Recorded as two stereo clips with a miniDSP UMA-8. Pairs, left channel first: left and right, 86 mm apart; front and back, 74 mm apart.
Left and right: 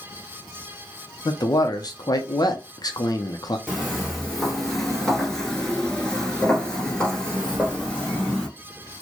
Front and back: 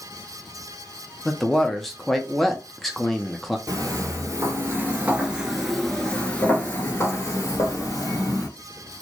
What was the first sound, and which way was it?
A man speaking, 85° left.